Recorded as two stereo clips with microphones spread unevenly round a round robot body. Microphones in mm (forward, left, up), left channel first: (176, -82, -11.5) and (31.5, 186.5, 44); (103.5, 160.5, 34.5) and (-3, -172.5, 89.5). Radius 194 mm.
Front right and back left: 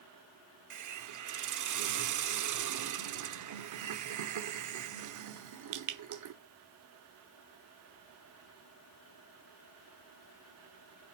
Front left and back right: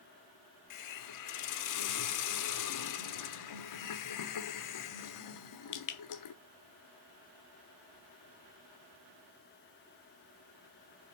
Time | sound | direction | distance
0.7 | a hiss | 90° left | 1.1 m